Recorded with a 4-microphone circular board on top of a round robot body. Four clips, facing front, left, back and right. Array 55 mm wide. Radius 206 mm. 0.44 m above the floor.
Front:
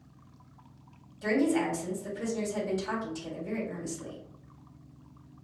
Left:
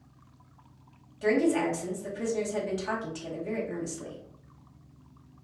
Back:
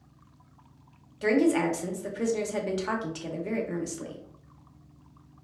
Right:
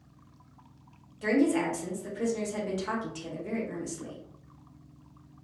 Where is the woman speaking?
175° right, 2 m.